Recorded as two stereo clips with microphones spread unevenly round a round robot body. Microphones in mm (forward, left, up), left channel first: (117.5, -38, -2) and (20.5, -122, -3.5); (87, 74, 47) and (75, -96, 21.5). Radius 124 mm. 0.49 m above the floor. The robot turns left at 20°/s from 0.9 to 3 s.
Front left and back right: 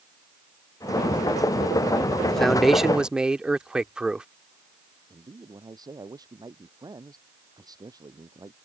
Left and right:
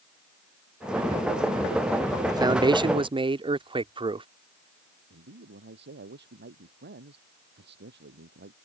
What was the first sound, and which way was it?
A man speaking, 45° right.